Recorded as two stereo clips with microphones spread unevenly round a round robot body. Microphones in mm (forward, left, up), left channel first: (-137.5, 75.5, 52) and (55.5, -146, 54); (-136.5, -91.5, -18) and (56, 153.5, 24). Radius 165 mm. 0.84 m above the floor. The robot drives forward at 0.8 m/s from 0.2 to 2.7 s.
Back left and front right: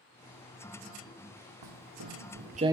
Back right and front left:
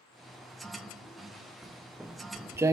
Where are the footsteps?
35° right, 1.8 m; by 2.7 s 20° left, 0.8 m.